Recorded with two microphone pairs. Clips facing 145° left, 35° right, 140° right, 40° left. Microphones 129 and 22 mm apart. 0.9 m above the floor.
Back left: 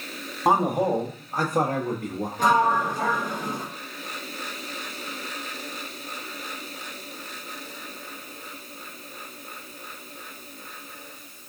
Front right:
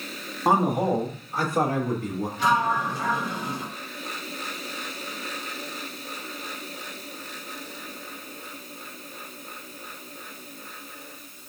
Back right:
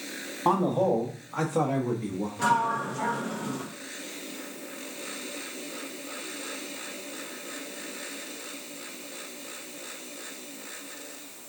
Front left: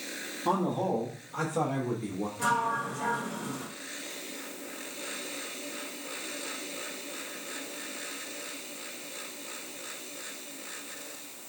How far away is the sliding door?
About 0.9 m.